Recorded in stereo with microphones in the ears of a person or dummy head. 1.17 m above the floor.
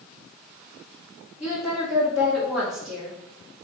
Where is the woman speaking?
10° right (ahead or behind), 1.2 m.